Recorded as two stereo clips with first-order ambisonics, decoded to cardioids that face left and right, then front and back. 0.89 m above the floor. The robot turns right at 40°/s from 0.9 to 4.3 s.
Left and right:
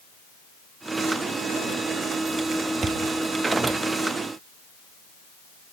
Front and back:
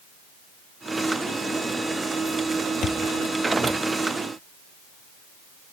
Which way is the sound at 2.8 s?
35° right.